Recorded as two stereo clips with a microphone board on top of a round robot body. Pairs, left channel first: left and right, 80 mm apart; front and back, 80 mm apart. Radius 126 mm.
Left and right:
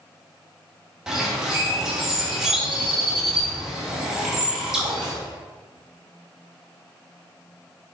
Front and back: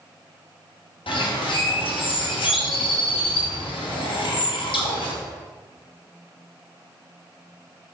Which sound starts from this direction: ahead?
A bird, at 1.1 s.